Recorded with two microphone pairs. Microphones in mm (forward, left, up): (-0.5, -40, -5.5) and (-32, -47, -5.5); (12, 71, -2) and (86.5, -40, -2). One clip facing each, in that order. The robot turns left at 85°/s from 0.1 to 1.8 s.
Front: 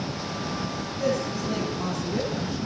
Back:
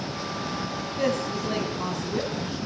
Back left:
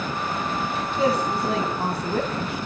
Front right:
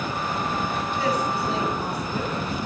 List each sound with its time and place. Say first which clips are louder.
1.0 s a woman speaking: even, back left 4 dB; 170° right, 2.5 m; by 2.6 s 120° left, 2.5 m